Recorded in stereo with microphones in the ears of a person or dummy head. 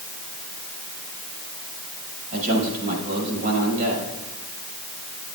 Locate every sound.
2.3 s a man speaking: 45° right (ahead or behind), 6 m